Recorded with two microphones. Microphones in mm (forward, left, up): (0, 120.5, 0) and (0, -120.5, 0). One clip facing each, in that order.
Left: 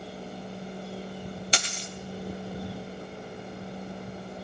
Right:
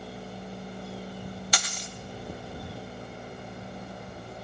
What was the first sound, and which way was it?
A dropped coin, 30° left (ahead or behind).